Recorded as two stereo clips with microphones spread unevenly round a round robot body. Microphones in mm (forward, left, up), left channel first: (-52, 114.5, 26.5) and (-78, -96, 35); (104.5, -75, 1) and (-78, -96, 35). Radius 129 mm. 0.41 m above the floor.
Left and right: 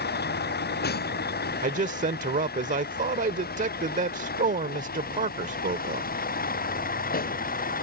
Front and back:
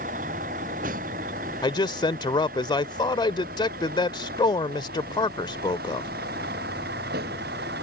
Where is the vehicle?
125° left; by 7.8 s 130° left.